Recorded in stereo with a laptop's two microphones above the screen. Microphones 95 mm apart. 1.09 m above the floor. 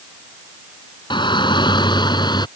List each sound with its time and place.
1.1 s a shout: 55° left (ahead or behind); by 2.5 s 50° left (ahead or behind)